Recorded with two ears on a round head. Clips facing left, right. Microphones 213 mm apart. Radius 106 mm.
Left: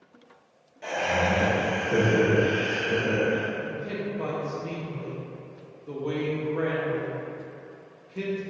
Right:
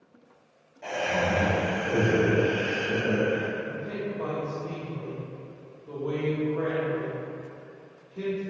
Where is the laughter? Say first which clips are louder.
Left 1 dB; 20° left (ahead or behind), 1.2 m; by 3.5 s 30° left (ahead or behind), 2.5 m.